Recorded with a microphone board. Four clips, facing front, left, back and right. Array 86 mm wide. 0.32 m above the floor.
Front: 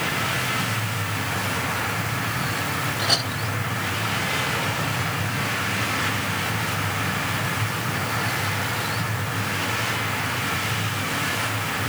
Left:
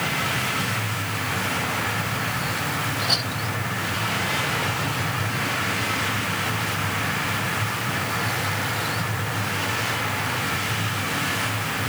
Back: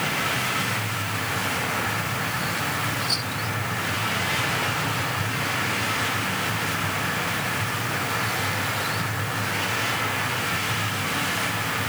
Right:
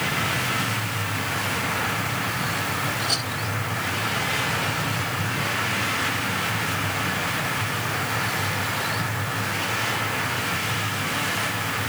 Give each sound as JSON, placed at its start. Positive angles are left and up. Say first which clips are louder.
{"t": 3.0, "sound": "a clink", "louder": "left 1 dB, front 3 dB", "azimuth_deg": 10}